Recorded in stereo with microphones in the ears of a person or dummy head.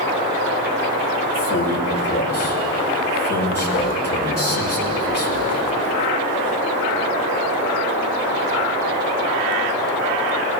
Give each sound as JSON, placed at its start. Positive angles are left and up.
{"t": 1.3, "sound": "a man speaking", "side_deg": 50, "distance_m": 6.0}